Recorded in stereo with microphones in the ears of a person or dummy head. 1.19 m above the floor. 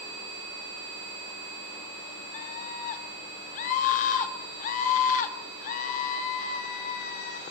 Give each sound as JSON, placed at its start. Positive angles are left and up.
{"t": 2.3, "sound": "a scream", "side_deg": 45, "distance_m": 2.5}